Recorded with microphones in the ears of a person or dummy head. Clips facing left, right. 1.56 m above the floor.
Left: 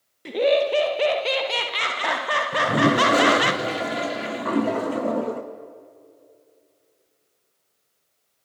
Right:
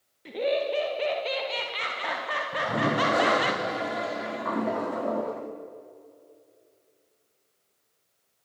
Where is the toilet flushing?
30° left (ahead or behind), 0.5 m.